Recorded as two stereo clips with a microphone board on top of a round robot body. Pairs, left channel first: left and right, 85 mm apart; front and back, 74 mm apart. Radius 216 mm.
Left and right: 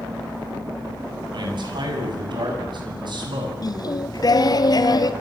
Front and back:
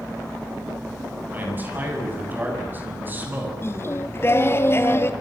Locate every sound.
1.3 s a man speaking: 115° right, 8 m
3.6 s singing: 55° left, 1.9 m